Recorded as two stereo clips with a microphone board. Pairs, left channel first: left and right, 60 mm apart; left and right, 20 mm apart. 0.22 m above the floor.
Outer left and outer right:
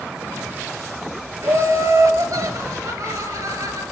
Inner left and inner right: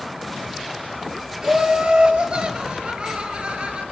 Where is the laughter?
65° right (ahead or behind), 4.5 m; by 3.8 s 70° right (ahead or behind), 4.5 m.